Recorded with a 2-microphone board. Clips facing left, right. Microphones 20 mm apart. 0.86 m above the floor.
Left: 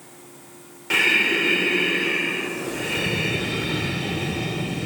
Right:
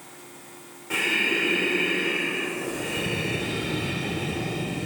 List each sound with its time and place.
0.9 s breathing: 70° left (ahead or behind), 1.2 m